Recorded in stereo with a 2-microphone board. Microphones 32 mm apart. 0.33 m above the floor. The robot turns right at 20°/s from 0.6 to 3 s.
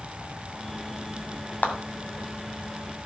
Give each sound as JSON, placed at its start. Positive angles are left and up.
{"t": 1.6, "sound": "a clap", "side_deg": 60, "distance_m": 2.0}